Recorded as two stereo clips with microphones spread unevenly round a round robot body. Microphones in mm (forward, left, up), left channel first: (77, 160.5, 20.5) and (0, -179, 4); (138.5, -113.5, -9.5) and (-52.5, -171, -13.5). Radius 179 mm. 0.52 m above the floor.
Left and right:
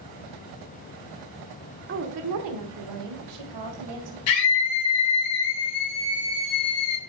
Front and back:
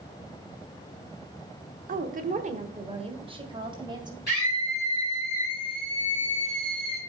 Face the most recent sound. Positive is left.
turn(degrees=80)